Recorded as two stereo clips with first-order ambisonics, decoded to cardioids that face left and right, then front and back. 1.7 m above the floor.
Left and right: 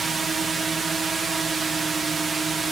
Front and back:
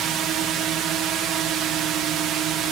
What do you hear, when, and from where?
0.0 s a drone: 160° right